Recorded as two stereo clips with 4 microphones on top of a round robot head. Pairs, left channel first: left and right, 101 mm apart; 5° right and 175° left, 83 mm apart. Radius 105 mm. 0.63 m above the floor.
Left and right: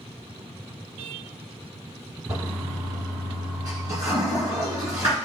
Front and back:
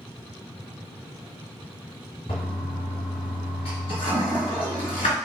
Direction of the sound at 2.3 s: 20° right.